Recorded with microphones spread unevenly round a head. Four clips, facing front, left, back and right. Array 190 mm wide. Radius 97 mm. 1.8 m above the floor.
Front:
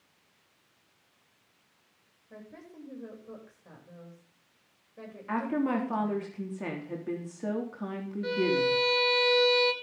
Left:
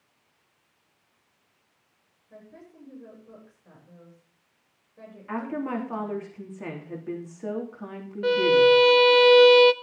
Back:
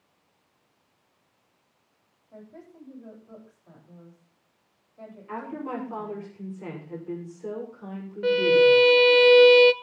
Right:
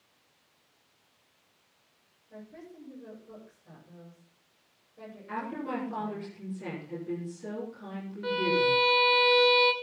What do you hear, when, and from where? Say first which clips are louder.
2.3 s a woman speaking: right 1 dB, back 1 dB; 10° left, 9 m
5.3 s a woman speaking: left 5 dB, front 5 dB; 30° left, 3.5 m
8.2 s a violin: left 9 dB, back 9 dB; 145° left, 0.6 m